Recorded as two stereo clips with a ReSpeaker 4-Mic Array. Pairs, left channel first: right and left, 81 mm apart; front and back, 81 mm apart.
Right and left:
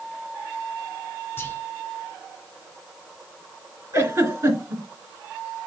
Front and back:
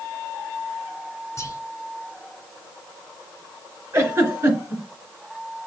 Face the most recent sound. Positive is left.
turn(degrees=130)